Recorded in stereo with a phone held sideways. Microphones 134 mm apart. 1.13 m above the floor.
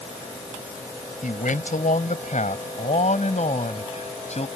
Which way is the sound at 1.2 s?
75° left (ahead or behind).